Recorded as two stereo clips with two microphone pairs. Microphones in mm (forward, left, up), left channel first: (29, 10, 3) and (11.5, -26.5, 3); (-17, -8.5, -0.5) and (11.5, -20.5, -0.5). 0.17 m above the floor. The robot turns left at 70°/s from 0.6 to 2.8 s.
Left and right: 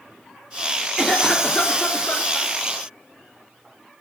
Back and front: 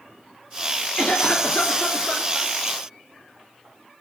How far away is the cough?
About 2.5 m.